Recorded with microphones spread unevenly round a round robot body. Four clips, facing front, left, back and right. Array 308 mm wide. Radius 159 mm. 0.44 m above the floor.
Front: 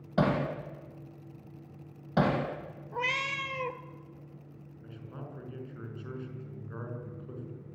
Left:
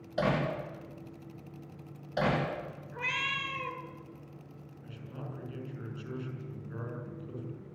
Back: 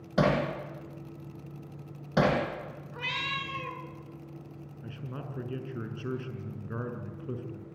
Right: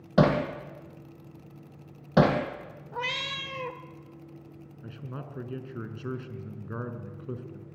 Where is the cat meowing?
50° right, 0.9 m.